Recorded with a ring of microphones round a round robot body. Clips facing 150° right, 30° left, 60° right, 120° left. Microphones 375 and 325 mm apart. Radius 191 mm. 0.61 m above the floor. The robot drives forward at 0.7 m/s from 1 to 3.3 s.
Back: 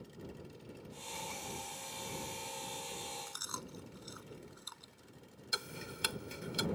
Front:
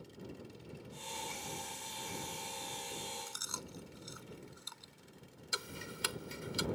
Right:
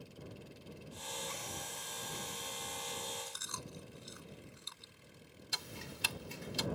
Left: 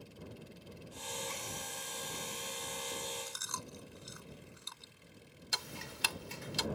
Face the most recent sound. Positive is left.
turn(degrees=120)